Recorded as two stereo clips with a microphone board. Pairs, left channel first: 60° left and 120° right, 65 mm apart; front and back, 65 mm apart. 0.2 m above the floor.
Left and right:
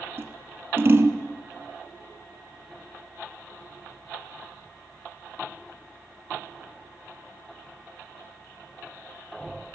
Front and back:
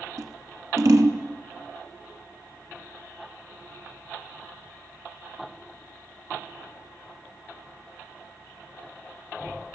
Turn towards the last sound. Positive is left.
turn(degrees=-170)